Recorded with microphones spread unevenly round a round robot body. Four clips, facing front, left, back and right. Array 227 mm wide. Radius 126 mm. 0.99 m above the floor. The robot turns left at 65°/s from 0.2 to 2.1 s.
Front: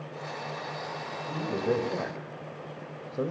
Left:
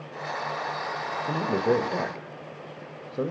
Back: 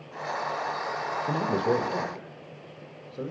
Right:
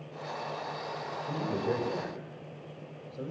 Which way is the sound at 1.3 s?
125° left.